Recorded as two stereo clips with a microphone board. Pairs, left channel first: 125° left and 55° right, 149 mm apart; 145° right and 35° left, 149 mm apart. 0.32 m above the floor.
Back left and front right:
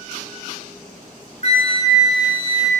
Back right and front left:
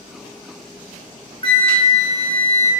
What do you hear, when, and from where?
1.4 s a flute: 165° left, 0.6 m